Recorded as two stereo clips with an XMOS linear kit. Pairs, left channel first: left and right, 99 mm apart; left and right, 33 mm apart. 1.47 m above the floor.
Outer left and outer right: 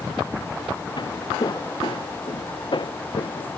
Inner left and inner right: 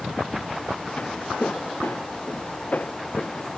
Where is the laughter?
I don't hear laughter.